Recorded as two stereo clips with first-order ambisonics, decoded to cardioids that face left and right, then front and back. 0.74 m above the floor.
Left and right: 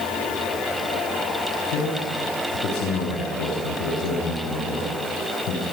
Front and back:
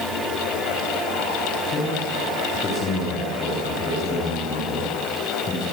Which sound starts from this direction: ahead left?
A man speaking, at 1.7 s.